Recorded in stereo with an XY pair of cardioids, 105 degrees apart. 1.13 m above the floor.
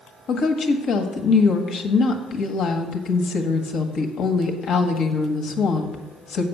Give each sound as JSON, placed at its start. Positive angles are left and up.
{"t": 0.3, "sound": "a woman speaking", "azimuth_deg": 65, "distance_m": 1.4}